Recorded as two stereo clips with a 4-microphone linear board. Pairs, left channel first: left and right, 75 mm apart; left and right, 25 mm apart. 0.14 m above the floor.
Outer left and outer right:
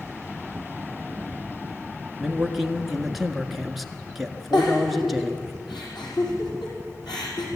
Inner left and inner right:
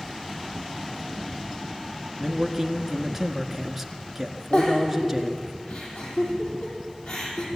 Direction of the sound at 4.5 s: 75° left (ahead or behind).